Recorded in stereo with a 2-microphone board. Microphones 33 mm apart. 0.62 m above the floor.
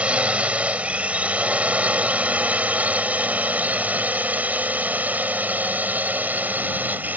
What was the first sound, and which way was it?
A drone, 40° right (ahead or behind).